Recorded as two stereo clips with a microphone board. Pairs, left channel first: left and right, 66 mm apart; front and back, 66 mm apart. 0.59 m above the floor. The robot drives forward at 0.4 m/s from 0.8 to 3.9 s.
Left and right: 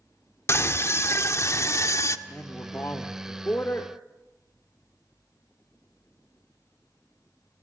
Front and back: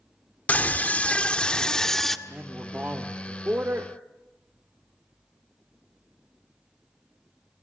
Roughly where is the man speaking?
Behind left.